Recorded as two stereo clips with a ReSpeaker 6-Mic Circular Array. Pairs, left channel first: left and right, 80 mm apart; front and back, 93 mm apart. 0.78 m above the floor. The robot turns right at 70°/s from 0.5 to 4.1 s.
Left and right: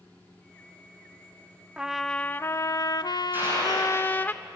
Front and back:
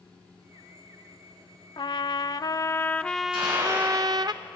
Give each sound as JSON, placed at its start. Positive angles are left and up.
{"t": 1.8, "sound": "a trumpet", "azimuth_deg": -15, "distance_m": 0.5}
{"t": 3.3, "sound": "a gunshot", "azimuth_deg": -155, "distance_m": 9.5}